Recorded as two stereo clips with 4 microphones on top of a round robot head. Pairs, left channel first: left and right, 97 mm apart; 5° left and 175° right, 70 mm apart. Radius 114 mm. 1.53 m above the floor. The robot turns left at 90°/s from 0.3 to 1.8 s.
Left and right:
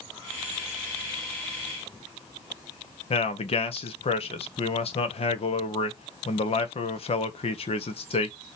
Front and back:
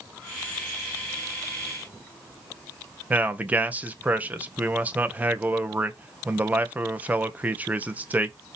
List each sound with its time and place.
3.1 s a man speaking: 115° left, 1.3 m